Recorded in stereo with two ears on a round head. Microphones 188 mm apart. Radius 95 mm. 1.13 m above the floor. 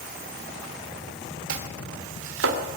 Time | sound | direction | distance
1.5 | chopping | 65° right (ahead or behind) | 3 m